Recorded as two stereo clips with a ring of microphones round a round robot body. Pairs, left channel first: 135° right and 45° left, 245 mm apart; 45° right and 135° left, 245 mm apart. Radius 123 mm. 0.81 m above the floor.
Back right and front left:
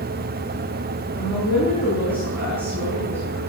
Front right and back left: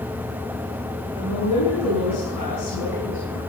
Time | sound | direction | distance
1.1 | a woman speaking | 40° right | 7.5 m